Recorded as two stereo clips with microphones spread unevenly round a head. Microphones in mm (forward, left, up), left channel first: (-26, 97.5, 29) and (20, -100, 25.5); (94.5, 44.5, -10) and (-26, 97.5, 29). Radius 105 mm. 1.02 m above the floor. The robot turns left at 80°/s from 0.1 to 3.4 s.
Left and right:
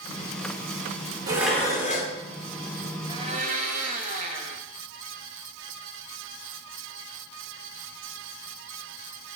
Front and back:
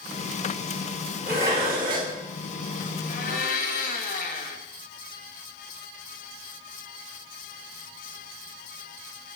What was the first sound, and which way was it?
Dishes clattering, 150° right.